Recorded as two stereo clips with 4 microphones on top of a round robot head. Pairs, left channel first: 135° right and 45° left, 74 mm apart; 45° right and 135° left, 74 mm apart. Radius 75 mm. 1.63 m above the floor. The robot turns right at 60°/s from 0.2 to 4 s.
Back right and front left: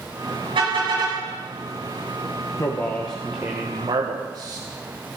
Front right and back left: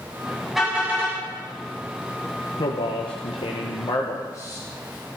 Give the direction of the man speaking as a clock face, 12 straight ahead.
3 o'clock.